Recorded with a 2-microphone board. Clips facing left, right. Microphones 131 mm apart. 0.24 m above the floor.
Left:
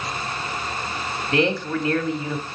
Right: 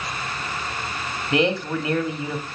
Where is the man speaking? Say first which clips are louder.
Even; 20° right (ahead or behind), 1.0 m.